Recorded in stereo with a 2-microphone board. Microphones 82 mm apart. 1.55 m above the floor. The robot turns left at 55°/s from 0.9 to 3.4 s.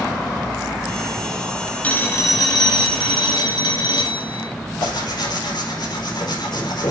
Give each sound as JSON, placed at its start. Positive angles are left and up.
{"t": 1.8, "sound": "a phone ringing", "azimuth_deg": 160, "distance_m": 1.8}
{"t": 4.8, "sound": "tearing paper", "side_deg": 65, "distance_m": 4.5}